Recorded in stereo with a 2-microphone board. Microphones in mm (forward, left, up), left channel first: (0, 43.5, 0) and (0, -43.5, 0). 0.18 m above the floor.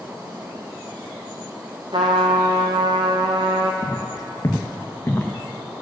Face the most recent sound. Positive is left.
turn(degrees=20)  # may be behind; listen again after turning